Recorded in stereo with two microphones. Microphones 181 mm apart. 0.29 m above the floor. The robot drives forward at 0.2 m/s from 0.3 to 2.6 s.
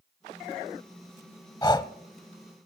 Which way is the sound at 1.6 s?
20° left (ahead or behind).